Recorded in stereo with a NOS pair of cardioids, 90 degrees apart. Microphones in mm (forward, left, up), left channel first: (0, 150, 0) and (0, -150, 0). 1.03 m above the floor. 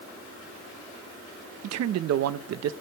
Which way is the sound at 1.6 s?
60° right.